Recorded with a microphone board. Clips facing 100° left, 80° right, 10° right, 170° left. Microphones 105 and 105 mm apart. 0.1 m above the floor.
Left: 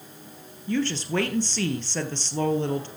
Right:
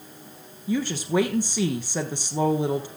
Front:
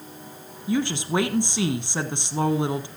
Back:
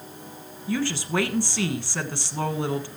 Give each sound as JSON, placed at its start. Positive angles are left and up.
{"t": 0.7, "sound": "a woman speaking", "azimuth_deg": -25, "distance_m": 1.1}